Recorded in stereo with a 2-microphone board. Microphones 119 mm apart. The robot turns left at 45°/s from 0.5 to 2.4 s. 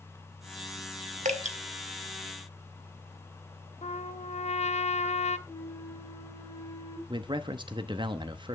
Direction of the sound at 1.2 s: 85° right.